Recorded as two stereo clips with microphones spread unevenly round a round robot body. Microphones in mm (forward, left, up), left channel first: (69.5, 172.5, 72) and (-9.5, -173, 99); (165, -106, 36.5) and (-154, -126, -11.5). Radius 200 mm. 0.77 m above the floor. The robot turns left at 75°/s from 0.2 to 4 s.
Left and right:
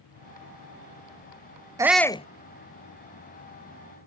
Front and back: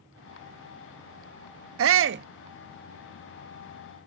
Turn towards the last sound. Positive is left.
turn(degrees=10)